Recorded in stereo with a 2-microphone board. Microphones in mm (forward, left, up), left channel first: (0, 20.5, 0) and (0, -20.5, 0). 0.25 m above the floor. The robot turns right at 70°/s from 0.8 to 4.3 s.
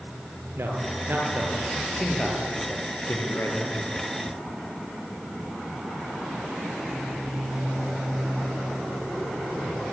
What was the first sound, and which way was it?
A man speaking, 70° right (ahead or behind).